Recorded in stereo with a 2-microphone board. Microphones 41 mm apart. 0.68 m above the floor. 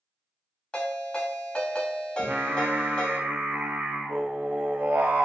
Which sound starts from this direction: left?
A ringtone, at 0.7 s.